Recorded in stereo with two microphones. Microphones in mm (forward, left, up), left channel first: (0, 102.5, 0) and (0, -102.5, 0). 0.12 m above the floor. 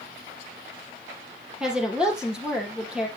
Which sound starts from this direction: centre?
A woman speaking, at 1.6 s.